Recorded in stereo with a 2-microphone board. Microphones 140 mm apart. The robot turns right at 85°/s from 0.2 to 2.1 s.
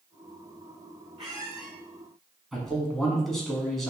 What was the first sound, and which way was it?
A squeak, 40° right.